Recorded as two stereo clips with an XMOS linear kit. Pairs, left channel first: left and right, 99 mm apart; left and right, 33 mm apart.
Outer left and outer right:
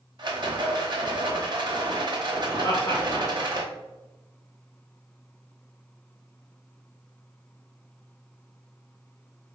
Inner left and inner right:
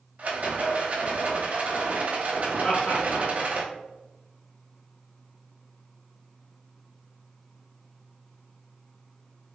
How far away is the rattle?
About 0.7 m.